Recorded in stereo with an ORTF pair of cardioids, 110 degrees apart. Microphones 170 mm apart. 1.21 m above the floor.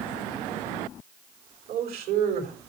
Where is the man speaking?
70° right, 4.5 m.